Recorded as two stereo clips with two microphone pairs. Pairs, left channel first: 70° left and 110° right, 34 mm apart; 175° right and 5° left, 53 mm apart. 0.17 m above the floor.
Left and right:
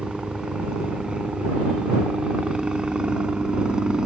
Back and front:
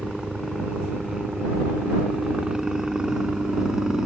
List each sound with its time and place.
0.0 s a helicopter: 60° right